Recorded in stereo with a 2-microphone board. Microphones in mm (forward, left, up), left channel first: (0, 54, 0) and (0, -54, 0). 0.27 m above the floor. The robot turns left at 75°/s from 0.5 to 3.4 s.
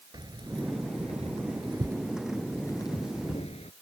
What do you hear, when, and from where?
0.1 s keys jangling: 40° right (ahead or behind); by 3.7 s 75° left (ahead or behind)